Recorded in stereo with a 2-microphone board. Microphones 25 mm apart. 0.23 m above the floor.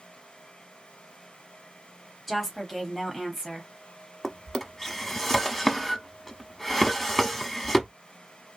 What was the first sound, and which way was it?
A woman speaking, 5° right (ahead or behind).